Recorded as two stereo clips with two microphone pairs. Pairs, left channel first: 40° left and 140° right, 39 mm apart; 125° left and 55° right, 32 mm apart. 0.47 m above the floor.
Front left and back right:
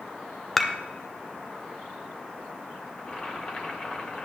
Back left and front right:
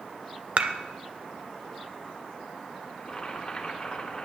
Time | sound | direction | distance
0.6 | dishes clattering | 40° right | 0.8 m
3.0 | boiling | 85° left | 1.8 m